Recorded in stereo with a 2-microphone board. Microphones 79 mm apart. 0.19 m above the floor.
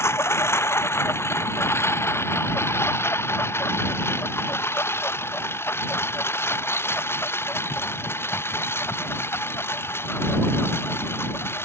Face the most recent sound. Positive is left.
turn(degrees=30)  # may be behind; listen again after turning